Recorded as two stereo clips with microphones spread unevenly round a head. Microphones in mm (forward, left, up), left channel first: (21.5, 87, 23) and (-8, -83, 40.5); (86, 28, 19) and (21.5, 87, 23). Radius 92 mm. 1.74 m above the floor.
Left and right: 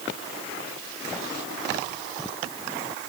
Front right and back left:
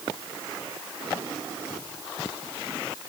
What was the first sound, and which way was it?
Only background noise.